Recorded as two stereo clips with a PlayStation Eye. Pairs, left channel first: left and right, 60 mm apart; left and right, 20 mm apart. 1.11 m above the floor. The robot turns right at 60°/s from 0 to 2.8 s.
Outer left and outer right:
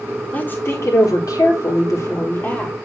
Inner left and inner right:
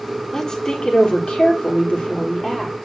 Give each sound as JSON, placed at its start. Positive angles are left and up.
{"t": 0.3, "sound": "a woman speaking", "azimuth_deg": 25, "distance_m": 3.5}